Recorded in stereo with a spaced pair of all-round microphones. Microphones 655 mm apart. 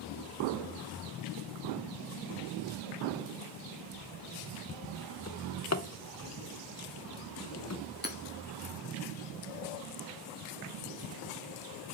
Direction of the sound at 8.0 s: 15° left (ahead or behind).